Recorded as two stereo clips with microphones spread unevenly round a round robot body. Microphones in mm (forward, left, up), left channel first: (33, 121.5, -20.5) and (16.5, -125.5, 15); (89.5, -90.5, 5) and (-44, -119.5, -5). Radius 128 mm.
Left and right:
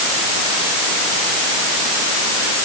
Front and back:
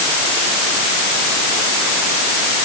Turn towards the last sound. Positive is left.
No sound to turn to.